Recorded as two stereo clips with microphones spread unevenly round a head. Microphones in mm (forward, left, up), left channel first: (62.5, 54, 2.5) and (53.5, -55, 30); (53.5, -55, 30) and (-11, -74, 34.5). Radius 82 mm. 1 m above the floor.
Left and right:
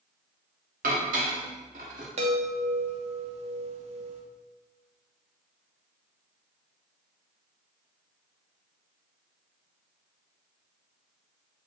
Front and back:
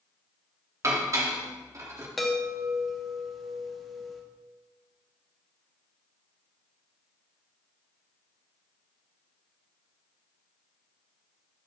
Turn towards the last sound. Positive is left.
turn(degrees=-70)